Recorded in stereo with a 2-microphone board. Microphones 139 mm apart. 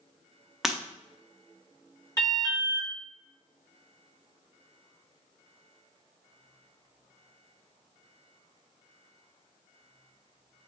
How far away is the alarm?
About 1.9 m.